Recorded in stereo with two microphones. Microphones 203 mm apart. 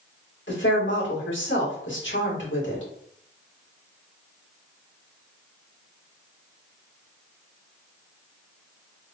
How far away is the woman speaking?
About 1.8 m.